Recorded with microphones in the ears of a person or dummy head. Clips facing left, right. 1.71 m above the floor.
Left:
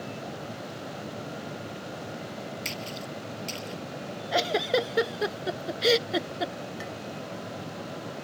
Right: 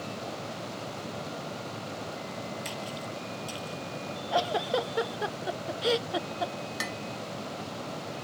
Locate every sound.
2.6 s a splash: 35° left (ahead or behind)
4.3 s a giggle: 30° left (ahead or behind)
6.8 s dishes clattering: 70° right (ahead or behind)